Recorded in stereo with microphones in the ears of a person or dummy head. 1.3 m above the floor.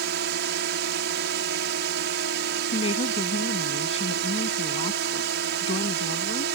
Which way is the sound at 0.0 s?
60° right (ahead or behind).